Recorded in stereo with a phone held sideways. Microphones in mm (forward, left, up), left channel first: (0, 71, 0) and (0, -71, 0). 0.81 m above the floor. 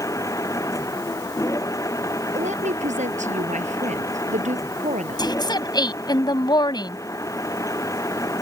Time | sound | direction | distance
0.0 | a machine running | 25° left (ahead or behind) | ?
2.4 | a woman speaking | 55° right (ahead or behind) | ?
5.2 | a woman speaking | 30° left (ahead or behind) | ?